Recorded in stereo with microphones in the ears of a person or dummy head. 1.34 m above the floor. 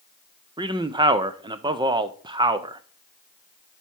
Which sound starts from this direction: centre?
A man speaking, at 0.6 s.